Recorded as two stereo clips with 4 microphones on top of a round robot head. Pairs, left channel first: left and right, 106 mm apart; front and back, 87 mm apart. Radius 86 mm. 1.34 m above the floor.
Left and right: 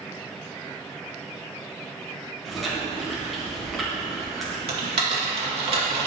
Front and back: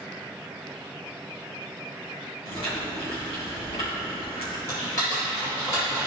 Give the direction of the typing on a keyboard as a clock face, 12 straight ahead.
2 o'clock.